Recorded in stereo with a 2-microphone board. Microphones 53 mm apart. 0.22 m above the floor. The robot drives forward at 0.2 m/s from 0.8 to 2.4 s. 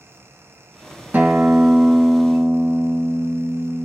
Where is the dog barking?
I don't hear a dog barking.